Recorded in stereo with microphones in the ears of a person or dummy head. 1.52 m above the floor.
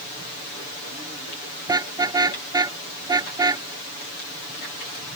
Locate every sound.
1.7 s a car horn: 20° right (ahead or behind)